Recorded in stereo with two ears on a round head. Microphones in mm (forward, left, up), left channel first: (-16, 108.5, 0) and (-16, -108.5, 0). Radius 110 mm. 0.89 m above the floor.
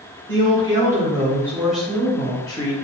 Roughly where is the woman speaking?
Centre.